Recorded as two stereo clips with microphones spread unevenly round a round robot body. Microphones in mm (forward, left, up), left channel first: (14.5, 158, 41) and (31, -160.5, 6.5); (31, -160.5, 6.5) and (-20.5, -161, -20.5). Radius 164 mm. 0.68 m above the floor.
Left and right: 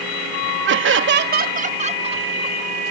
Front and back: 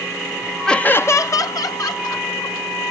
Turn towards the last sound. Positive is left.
turn(degrees=-15)